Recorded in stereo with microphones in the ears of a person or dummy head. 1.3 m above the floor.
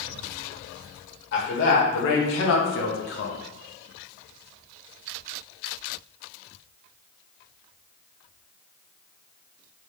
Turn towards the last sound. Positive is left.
turn(degrees=65)  # may be behind; listen again after turning